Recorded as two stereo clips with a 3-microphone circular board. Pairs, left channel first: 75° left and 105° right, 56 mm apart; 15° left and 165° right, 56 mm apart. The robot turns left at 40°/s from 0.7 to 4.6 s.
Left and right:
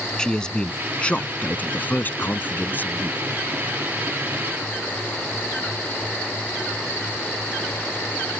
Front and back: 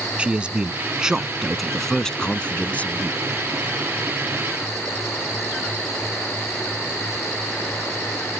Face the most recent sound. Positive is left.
turn(degrees=-15)